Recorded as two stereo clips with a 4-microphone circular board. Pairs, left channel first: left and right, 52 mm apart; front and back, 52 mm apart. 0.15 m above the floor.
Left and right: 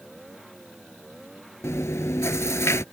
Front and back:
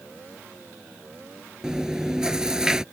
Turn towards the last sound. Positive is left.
turn(degrees=105)